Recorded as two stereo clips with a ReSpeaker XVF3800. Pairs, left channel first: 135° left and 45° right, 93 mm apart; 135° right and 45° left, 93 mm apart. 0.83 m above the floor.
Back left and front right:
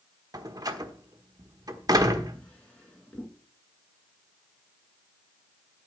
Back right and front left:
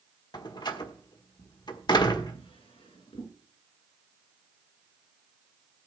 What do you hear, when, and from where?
0.3 s a door slam: 95° right, 1.3 m
2.3 s a drawer: 145° right, 4 m